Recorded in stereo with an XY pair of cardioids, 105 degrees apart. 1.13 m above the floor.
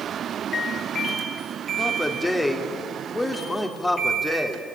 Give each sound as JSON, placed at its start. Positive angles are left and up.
{"t": 1.8, "sound": "a man speaking", "azimuth_deg": 20, "distance_m": 3.5}